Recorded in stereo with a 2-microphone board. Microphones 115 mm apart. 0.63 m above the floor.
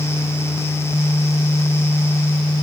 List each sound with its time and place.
Only background noise.